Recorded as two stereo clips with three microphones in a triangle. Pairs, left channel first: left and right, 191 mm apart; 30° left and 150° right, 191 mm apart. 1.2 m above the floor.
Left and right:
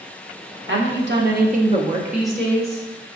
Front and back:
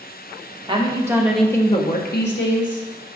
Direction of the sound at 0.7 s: 85° right.